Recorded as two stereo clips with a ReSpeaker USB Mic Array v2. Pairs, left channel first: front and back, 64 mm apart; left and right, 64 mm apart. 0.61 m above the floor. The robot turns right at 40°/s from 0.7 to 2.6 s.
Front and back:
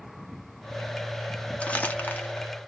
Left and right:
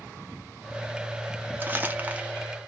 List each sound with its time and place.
1.6 s crumpling: 55° right, 0.7 m; by 2.4 s 25° right, 0.7 m